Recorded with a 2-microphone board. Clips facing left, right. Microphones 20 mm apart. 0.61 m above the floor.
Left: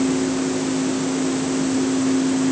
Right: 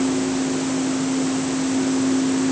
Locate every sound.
Only background noise.